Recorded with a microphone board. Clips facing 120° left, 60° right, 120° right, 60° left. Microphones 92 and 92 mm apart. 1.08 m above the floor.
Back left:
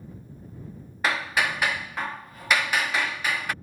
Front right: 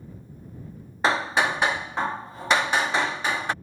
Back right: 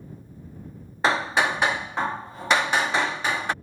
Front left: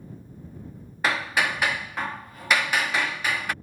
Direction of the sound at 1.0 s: 90° right.